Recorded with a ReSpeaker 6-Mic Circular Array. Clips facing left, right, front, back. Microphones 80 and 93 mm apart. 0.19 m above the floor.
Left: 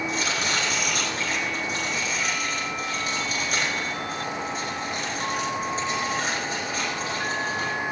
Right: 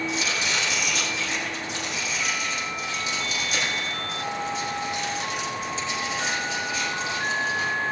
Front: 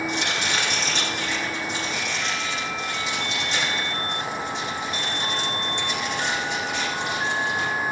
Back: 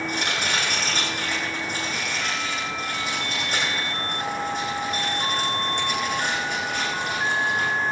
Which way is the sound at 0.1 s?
135° left.